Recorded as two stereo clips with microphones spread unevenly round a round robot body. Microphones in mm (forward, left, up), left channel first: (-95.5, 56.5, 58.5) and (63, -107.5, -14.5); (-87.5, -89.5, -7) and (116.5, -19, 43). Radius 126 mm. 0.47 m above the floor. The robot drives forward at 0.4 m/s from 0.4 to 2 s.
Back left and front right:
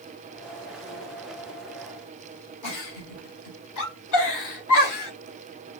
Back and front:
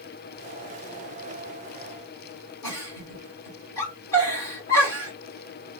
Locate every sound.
2.6 s a giggle: 125° left, 1.4 m